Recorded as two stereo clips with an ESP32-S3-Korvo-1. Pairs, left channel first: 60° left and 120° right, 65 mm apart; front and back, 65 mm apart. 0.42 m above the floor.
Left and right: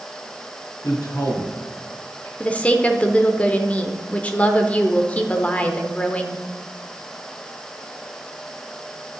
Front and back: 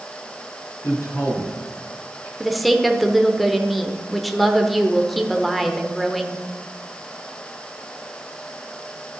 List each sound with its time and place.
0.8 s a man speaking: 40° left, 4 m
2.4 s a woman speaking: 90° left, 0.8 m